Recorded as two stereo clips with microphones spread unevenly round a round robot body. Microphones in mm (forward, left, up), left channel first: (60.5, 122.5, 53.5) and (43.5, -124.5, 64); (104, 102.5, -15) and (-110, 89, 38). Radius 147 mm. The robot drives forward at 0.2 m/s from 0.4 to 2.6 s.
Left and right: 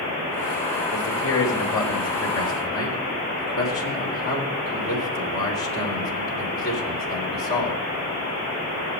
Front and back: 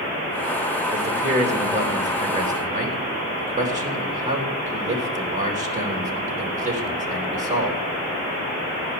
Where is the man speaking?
120° left, 3.5 m; by 7.8 s 125° left, 3.5 m.